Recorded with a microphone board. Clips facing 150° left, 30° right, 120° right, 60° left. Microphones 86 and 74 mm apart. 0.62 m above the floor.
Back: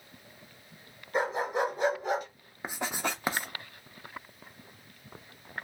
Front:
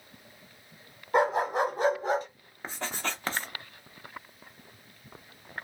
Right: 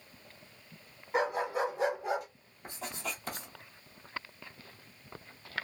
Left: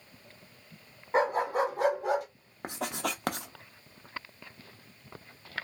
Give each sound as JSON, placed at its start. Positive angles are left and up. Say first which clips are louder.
{"t": 1.1, "sound": "a dog barking", "louder": "front 4 dB, left 4 dB", "azimuth_deg": 5, "distance_m": 1.3}
{"t": 2.6, "sound": "writing", "louder": "back 2 dB, left 7 dB", "azimuth_deg": 75, "distance_m": 0.5}